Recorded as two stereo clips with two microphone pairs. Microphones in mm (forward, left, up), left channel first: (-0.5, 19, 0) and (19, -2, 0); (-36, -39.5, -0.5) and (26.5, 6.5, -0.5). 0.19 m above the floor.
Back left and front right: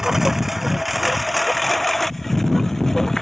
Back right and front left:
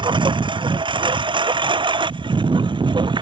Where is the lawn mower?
25° left; by 3.2 s 50° left.